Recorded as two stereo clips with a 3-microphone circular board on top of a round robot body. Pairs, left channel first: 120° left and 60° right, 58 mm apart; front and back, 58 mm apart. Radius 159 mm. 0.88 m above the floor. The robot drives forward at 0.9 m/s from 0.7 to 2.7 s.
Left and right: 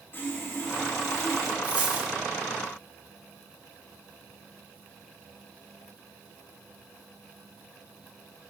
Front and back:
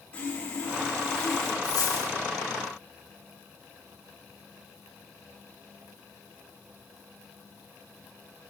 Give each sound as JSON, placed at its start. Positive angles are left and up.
{"t": 0.1, "sound": "sawing", "azimuth_deg": 70, "distance_m": 2.0}
{"t": 1.6, "sound": "a dropped coin", "azimuth_deg": 5, "distance_m": 2.5}